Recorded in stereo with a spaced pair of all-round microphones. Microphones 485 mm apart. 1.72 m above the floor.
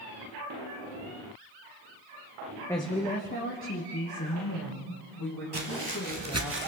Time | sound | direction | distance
2.7 | a woman speaking | 5° left (ahead or behind) | 1.1 m
5.5 | footsteps | 55° right (ahead or behind) | 2.5 m